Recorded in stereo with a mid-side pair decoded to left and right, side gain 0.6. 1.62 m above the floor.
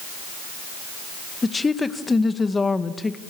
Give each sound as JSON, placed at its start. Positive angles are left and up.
{"t": 1.4, "sound": "a woman speaking", "azimuth_deg": 20, "distance_m": 2.0}